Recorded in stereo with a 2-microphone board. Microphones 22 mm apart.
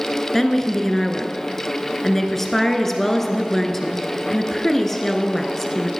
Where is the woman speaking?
15° left (ahead or behind), 1.4 m.